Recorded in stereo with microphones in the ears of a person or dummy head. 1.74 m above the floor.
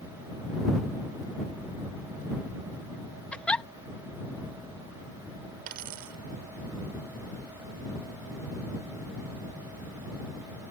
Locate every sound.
3.3 s a giggle: 10° left (ahead or behind)
5.7 s a dropped coin: 45° right (ahead or behind)